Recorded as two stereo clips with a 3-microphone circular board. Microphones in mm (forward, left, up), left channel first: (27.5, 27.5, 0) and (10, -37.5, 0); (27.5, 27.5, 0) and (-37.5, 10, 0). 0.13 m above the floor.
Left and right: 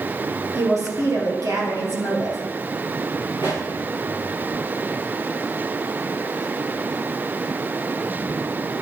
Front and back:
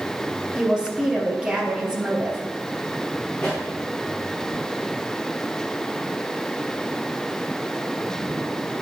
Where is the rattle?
I don't hear a rattle.